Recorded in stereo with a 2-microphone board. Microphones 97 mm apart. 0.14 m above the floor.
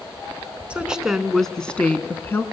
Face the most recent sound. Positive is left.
turn(degrees=25)  # may be behind; listen again after turning